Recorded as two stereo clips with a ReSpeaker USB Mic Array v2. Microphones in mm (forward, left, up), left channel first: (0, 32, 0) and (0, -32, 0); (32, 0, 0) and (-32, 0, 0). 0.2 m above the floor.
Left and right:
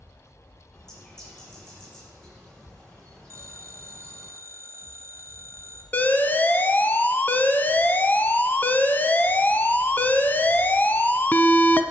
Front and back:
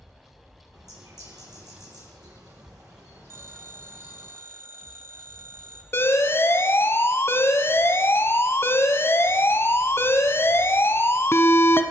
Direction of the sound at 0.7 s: 170° left.